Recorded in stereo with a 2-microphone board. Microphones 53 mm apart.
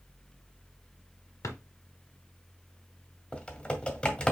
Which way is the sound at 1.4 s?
80° left.